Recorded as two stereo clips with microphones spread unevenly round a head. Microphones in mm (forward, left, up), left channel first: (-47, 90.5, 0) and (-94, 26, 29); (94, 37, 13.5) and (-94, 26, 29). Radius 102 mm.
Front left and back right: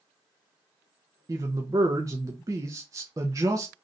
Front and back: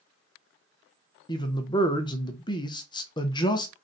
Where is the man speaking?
55° right, 0.6 m.